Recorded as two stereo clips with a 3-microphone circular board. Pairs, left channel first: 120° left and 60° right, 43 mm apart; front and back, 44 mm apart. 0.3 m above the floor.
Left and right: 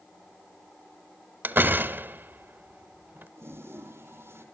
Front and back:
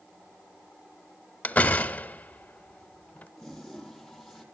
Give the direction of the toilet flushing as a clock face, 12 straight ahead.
3 o'clock.